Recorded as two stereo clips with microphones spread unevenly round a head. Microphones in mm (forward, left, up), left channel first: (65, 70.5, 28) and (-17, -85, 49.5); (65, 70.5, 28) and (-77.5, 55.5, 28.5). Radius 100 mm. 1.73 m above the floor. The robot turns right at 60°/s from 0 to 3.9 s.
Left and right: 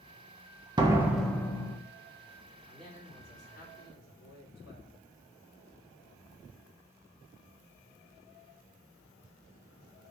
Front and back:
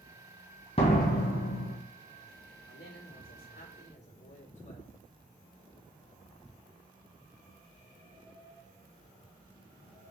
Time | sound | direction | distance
0.8 | a door slam | 55° right | 1.4 m
2.7 | a man speaking | 30° right | 3.5 m